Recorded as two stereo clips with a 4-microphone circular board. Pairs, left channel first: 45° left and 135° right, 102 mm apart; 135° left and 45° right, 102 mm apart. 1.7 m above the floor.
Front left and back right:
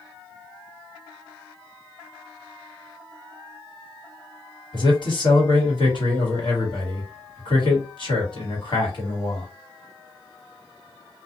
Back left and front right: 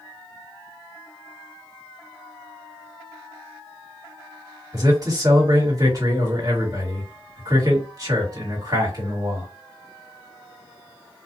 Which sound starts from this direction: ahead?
A man speaking, at 4.7 s.